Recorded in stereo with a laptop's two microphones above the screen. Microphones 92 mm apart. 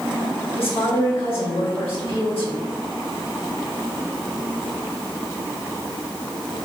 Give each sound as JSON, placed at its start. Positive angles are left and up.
{"t": 0.6, "sound": "a woman speaking", "side_deg": 75, "distance_m": 1.5}